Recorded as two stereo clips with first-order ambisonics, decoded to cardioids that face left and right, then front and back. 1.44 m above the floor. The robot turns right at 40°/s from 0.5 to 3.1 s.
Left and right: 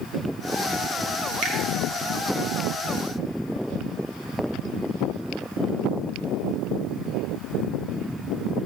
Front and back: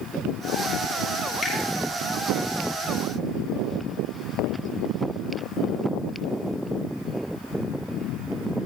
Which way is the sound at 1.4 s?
90° right.